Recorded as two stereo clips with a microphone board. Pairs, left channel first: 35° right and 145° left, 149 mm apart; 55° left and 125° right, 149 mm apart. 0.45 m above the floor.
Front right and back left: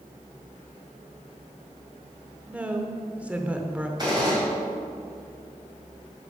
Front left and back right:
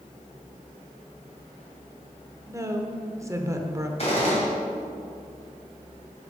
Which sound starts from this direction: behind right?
A woman speaking, at 2.5 s.